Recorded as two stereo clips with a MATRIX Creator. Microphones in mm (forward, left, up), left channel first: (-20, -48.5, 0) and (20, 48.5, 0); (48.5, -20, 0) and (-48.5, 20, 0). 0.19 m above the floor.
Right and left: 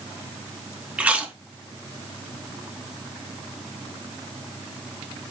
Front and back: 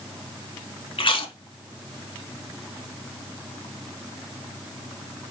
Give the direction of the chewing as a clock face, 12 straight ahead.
12 o'clock.